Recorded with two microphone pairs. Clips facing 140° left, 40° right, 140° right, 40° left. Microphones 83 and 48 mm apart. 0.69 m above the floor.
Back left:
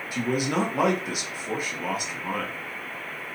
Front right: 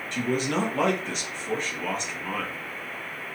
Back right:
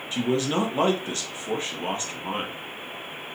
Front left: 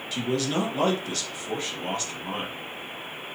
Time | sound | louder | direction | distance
0.1 | a man speaking | back left 1 dB, back right 2 dB | 150° right | 1.0 m